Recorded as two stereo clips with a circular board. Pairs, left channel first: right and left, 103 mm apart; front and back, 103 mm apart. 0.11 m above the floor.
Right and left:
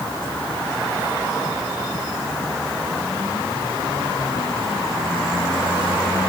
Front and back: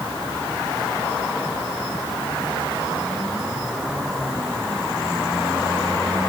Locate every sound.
Only background noise.